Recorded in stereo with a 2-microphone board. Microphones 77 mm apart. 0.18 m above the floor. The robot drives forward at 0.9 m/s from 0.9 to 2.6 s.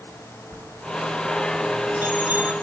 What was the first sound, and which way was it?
A bell, 45° right (ahead or behind).